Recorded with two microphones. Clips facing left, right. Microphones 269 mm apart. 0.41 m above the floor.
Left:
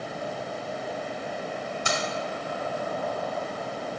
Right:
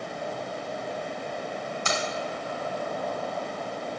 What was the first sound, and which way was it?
Keys jangling, 10° left (ahead or behind).